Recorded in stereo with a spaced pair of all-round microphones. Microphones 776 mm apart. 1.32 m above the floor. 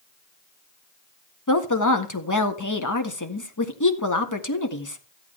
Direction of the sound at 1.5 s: 25° left (ahead or behind).